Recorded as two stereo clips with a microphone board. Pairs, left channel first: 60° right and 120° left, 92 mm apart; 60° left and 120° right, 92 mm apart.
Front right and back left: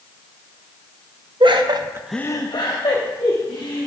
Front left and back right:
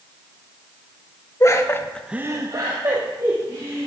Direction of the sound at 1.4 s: 110° left.